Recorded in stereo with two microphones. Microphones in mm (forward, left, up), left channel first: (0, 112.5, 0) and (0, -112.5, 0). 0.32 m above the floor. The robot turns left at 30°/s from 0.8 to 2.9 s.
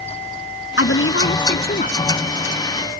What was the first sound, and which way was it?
A woman speaking, 75° left.